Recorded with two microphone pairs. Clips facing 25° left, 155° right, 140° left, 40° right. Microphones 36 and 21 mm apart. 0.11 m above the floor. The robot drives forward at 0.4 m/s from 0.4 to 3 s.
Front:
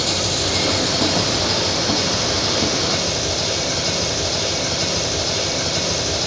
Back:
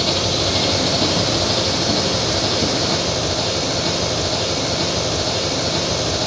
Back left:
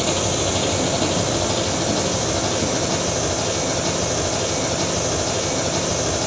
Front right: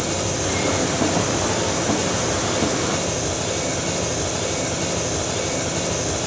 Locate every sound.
0.0 s an engine running: 140° left, 2 m; by 6.3 s 155° left, 3 m